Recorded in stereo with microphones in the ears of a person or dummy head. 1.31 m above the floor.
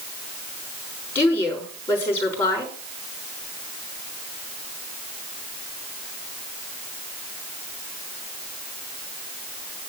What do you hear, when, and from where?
1.1 s a woman speaking: 15° left (ahead or behind), 4 m